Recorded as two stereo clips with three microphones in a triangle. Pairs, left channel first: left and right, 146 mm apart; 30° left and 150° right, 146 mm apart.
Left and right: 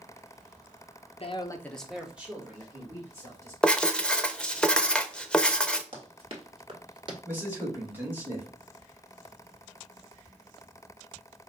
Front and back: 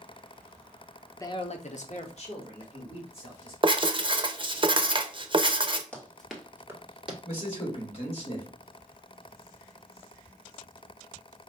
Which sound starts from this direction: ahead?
A man speaking, at 7.2 s.